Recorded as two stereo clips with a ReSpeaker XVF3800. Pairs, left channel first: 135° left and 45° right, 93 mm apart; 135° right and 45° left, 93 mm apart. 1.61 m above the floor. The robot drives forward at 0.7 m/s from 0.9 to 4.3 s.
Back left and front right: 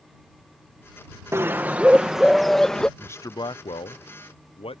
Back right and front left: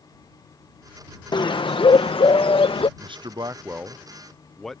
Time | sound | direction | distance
1.3 | a bird | 105° right | ?
3.0 | a man speaking | 65° left | ?